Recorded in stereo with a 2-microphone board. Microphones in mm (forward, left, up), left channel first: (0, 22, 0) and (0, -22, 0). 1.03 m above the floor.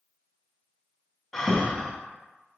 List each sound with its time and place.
1.3 s breathing: 10° left (ahead or behind), 0.8 m